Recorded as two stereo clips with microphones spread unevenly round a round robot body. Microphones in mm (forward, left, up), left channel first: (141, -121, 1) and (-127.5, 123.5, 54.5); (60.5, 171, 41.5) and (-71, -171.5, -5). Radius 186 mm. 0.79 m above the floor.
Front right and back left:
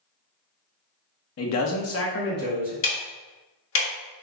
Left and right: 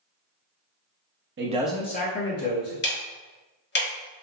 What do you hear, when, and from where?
1.4 s a man speaking: 70° right, 0.7 m; by 2.7 s 25° left, 1.7 m
2.8 s ticking: 5° left, 1.0 m